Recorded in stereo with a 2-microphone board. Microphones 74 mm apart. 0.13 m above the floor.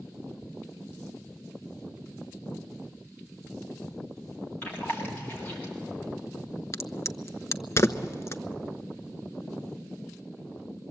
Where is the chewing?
25° left (ahead or behind), 5.5 m.